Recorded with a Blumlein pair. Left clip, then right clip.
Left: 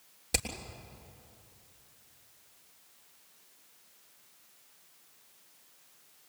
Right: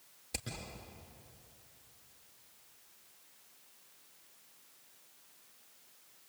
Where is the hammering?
35° left, 6 m.